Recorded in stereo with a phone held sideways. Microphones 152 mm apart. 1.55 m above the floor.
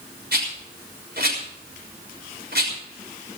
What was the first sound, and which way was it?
A rattle, 85° right.